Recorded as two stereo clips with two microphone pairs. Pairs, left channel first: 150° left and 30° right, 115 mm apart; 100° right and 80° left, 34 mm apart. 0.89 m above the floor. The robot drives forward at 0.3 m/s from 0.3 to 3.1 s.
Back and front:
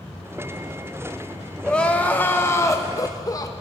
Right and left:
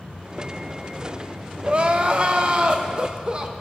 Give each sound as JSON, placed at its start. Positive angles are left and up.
{"t": 1.6, "sound": "crying", "azimuth_deg": 70, "distance_m": 0.9}